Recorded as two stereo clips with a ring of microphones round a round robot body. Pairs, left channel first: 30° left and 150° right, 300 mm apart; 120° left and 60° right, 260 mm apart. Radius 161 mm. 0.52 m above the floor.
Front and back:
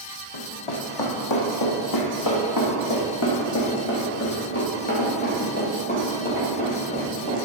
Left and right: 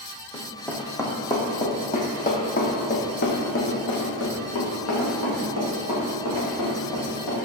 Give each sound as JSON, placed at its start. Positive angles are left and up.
{"t": 0.3, "sound": "running footsteps", "azimuth_deg": 25, "distance_m": 1.7}